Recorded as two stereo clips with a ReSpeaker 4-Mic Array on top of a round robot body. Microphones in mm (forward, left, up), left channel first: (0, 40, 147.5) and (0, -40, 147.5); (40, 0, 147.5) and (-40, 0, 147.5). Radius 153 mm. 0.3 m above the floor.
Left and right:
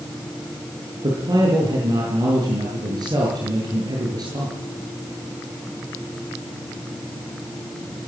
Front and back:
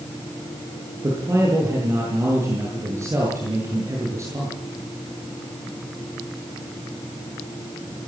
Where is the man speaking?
125° right, 8.5 m.